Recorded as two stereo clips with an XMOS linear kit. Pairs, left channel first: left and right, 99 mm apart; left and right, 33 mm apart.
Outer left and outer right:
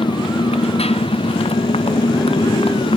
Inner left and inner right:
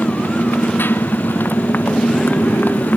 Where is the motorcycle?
85° left; by 3.0 s 70° left (ahead or behind).